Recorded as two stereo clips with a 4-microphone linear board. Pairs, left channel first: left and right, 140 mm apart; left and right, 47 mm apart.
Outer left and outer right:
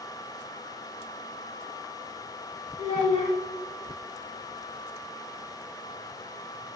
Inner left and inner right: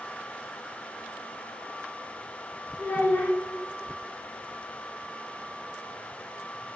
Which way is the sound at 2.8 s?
45° left (ahead or behind).